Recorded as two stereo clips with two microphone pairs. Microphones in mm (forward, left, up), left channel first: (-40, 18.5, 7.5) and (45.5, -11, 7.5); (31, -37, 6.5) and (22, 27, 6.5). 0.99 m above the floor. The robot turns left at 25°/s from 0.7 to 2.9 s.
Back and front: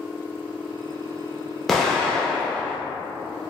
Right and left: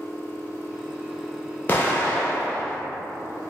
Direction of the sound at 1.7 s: 115° right.